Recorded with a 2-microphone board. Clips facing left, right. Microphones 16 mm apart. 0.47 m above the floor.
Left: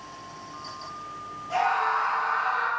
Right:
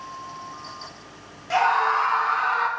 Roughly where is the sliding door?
I don't hear a sliding door.